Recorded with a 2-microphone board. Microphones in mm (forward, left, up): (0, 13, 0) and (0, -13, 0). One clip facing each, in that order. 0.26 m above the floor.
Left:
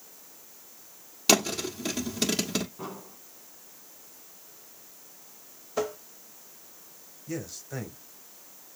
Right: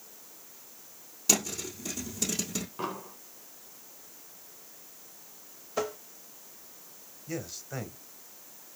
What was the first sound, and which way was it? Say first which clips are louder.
A thud: left 6 dB; 50° left (ahead or behind).